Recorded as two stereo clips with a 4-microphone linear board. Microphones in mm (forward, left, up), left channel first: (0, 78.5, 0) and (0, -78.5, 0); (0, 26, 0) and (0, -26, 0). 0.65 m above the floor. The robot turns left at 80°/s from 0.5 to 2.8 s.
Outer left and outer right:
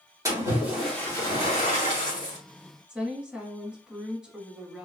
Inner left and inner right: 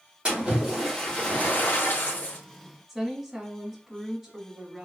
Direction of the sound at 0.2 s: 155° right.